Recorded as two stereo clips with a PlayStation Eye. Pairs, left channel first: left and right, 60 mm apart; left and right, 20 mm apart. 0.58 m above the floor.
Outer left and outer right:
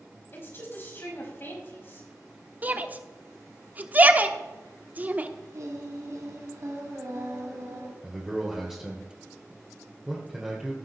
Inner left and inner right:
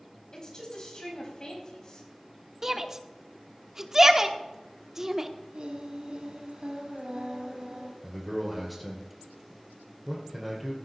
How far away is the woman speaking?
About 4.5 m.